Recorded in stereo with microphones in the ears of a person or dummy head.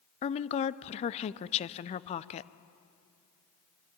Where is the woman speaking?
35° left (ahead or behind), 0.5 m.